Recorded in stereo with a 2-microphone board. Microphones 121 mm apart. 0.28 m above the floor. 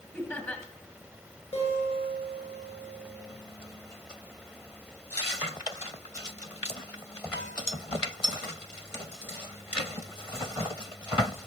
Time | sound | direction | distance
0.1 | laughter | 15° left (ahead or behind) | 1.6 m
1.5 | a guitar | 55° left (ahead or behind) | 4.5 m